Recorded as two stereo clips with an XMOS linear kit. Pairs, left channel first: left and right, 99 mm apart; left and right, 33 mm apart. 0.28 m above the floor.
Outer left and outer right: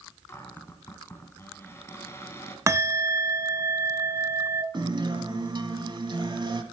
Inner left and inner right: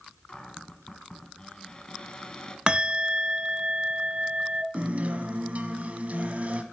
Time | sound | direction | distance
0.3 | a cupboard door | 25° left (ahead or behind) | 1.6 m
2.7 | a bell | 30° right (ahead or behind) | 0.7 m
4.7 | a guitar | 55° right (ahead or behind) | 1.2 m